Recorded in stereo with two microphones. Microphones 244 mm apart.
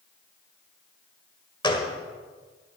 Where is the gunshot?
20° left (ahead or behind), 1.4 m.